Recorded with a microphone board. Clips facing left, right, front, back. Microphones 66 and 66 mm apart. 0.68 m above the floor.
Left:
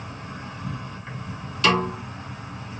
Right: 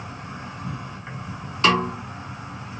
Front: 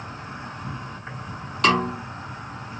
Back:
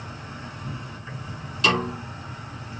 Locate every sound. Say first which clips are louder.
0.0 s an insect: right 1 dB, front 2 dB; 25° right, 3 m
1.6 s a snare drum: right 1 dB, front 3 dB; 35° right, 2.5 m